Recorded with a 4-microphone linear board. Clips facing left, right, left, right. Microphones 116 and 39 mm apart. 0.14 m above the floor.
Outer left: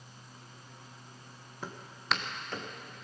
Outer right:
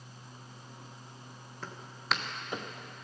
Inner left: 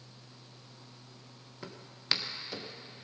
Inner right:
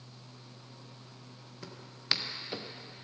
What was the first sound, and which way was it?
Footsteps, 15° left (ahead or behind).